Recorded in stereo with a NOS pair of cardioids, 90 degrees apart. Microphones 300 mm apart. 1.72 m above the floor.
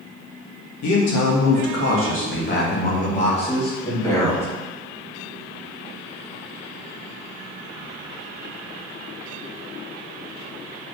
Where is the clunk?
I don't hear a clunk.